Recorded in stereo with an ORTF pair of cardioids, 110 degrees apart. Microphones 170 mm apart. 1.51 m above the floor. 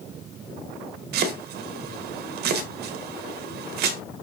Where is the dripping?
I don't hear dripping.